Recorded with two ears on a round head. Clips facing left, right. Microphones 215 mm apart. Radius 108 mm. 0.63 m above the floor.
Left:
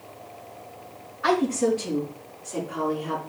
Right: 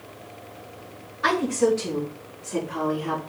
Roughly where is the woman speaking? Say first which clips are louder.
Right 1 dB; right.